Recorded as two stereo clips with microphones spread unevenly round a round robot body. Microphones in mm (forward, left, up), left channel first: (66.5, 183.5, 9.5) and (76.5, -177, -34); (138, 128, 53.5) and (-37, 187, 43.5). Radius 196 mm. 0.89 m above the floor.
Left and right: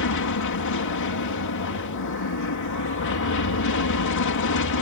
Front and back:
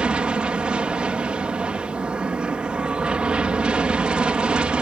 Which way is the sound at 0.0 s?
80° left.